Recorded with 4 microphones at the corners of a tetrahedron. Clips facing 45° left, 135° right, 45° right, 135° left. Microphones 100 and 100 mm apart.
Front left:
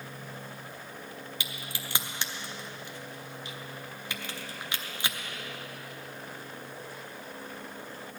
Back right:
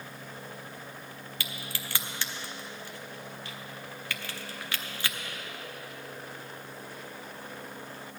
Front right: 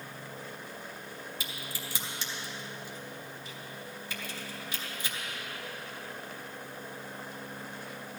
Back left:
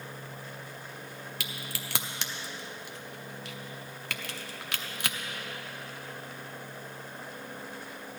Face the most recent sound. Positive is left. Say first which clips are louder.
# even, back left 1 dB
turn(degrees=115)